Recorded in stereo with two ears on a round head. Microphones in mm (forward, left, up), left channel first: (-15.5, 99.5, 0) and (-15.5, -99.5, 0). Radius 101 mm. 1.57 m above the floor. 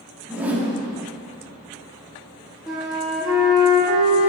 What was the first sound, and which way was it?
A whoosh, 5° right (ahead or behind).